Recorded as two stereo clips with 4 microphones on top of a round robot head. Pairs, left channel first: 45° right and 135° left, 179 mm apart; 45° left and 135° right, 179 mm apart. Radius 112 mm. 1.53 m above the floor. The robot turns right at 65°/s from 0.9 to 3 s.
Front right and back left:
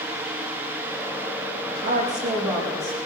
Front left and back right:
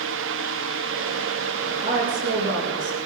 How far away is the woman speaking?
About 6.5 m.